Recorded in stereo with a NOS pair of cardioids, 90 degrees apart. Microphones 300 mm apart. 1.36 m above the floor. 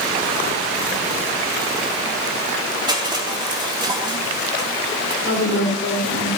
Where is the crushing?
15° right, 4 m.